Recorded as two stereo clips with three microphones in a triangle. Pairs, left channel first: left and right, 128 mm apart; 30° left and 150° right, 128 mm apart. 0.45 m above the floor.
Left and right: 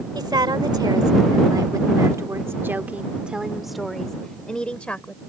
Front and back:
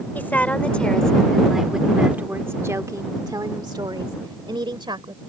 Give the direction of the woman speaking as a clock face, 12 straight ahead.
1 o'clock.